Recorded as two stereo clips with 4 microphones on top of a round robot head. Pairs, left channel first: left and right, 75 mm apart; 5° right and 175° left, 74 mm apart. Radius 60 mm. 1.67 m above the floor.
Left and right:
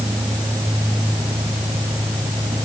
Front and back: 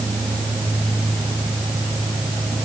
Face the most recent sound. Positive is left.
No sound to turn to.